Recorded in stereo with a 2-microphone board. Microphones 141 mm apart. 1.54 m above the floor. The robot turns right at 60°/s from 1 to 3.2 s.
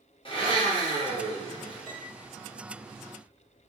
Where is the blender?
70° left, 0.9 m; by 2.0 s 130° left, 0.9 m.